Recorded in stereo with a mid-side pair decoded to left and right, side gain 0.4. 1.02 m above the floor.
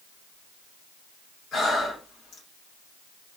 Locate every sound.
1.5 s breathing: 65° left, 1.9 m